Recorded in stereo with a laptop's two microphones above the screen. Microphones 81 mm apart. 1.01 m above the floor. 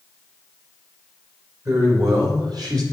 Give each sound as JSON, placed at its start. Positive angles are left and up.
{"t": 1.6, "sound": "a man speaking", "side_deg": -50, "distance_m": 4.0}